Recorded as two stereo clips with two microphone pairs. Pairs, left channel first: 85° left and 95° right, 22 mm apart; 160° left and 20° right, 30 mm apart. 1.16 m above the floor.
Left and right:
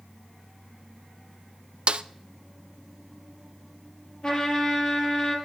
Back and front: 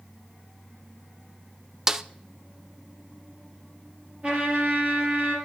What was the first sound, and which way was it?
A snare drum, 90° right.